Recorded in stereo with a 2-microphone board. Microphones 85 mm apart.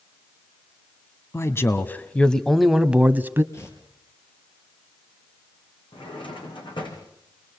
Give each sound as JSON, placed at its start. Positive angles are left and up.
{"t": 1.3, "sound": "a man speaking", "side_deg": 35, "distance_m": 1.4}
{"t": 3.5, "sound": "tearing paper", "side_deg": 35, "distance_m": 4.5}
{"t": 5.9, "sound": "a drawer", "side_deg": 85, "distance_m": 5.5}